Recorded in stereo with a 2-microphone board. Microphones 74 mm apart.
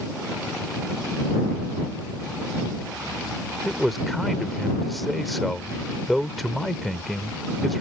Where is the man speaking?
Centre (ahead or behind).